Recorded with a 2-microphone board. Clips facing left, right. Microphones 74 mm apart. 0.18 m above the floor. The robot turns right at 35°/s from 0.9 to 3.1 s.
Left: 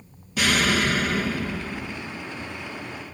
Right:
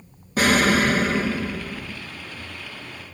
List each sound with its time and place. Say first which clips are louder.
0.4 s an explosion: right 4 dB; 45° right, 2.5 m; by 2.0 s 5° right, 2.5 m